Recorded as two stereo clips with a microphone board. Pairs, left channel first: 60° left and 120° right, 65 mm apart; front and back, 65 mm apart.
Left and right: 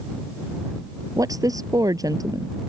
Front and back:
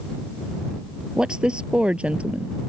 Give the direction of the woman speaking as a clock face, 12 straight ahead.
3 o'clock.